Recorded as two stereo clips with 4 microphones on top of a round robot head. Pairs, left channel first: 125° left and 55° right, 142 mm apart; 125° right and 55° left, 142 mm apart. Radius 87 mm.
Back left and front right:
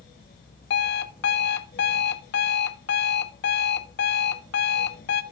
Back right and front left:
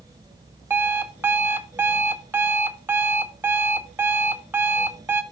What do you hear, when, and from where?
0.7 s an alarm clock: 130° left, 0.6 m